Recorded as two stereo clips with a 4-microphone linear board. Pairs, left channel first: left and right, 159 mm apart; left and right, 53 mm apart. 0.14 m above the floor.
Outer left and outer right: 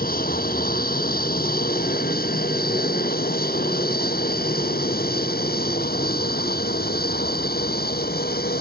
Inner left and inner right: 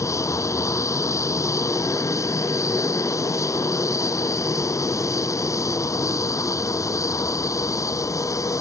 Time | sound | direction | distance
0.0 | an aircraft | 70° left (ahead or behind) | ?